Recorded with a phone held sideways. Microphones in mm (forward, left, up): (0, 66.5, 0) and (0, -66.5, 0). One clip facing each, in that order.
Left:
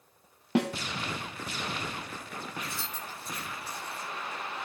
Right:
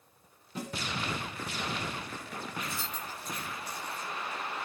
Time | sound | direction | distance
0.6 | a snare drum | 70° left (ahead or behind) | 0.7 m
2.6 | keys jangling | 30° left (ahead or behind) | 8 m